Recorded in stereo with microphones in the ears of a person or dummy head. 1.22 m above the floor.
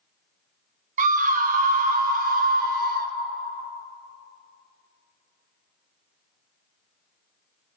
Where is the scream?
40° right (ahead or behind), 0.6 m; by 3.1 s 45° right (ahead or behind), 2 m.